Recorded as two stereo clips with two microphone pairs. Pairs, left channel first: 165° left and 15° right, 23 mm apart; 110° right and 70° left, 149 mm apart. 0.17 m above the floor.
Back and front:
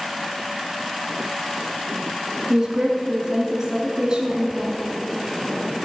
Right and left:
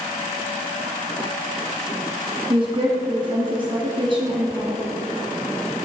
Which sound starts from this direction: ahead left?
A woman speaking, at 2.5 s.